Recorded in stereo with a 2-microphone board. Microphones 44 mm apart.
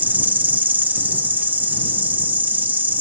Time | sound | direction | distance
0.0 | an insect | 40° right (ahead or behind) | ?